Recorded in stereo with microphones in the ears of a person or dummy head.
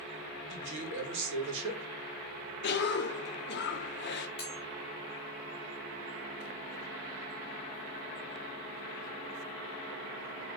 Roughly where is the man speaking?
Right.